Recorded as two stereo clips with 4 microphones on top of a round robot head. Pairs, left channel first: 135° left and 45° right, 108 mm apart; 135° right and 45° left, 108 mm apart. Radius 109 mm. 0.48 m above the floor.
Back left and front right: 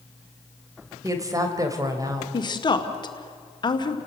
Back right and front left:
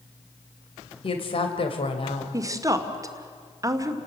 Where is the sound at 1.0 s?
105° right, 2.5 m.